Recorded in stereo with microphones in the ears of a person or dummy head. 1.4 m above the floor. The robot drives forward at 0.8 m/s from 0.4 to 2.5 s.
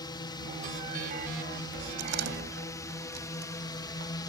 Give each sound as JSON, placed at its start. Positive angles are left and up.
{"t": 0.0, "sound": "a drone", "side_deg": 25}
{"t": 2.0, "sound": "a door slam", "side_deg": -65}